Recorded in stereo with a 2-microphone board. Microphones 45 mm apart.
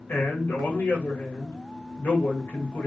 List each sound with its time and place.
0.1 s a man speaking: 50° left (ahead or behind), 2 m